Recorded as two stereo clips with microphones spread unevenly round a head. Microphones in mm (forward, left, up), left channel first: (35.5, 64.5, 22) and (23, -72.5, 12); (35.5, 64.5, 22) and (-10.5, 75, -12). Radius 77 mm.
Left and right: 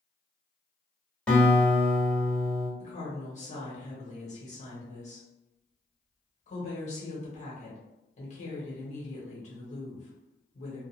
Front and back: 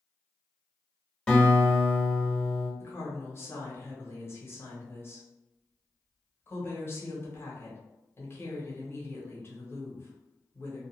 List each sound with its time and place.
1.3 s a guitar: 5° left, 1.2 m
2.8 s a woman speaking: 45° left, 1.3 m